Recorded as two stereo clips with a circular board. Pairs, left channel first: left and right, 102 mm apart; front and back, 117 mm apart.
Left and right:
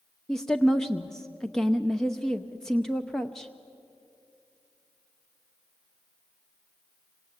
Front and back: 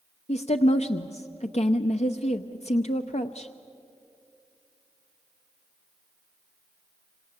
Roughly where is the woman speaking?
Ahead.